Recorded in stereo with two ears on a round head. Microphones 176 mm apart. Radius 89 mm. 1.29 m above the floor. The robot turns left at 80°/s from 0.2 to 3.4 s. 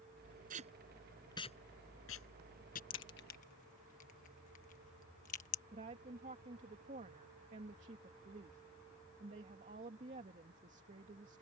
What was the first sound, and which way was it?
Tape being pulled, 45° right (ahead or behind).